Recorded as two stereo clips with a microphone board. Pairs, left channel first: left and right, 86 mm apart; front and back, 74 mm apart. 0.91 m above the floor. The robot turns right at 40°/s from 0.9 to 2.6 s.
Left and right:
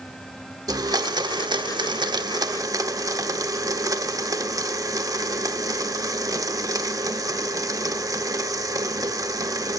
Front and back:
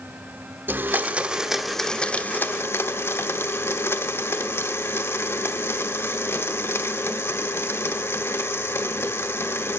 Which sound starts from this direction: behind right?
A blender, at 0.7 s.